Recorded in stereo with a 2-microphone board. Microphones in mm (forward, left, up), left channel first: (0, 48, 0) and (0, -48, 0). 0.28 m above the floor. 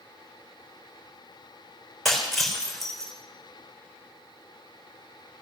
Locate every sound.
2.0 s breaking glass: centre (ahead or behind), 4 m